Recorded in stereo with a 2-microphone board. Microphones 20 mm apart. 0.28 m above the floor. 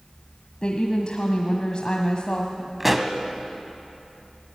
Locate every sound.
0.6 s a woman speaking: 50° left (ahead or behind), 1.4 m
2.8 s a pop: 5° right (ahead or behind), 1.3 m